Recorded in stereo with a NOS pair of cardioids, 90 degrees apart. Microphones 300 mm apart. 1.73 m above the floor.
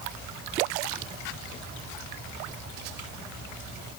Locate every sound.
Only background noise.